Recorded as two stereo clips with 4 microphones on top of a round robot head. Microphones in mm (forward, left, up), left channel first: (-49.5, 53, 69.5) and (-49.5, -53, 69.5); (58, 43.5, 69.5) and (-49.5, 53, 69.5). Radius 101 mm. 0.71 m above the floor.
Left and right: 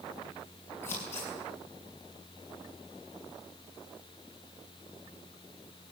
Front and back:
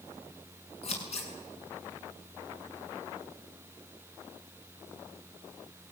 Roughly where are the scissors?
Ahead.